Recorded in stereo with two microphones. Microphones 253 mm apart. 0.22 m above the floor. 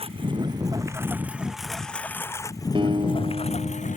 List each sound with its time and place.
0.0 s a lawn mower: 20° right (ahead or behind); by 4.0 s 30° left (ahead or behind)
2.8 s a guitar: 20° right (ahead or behind)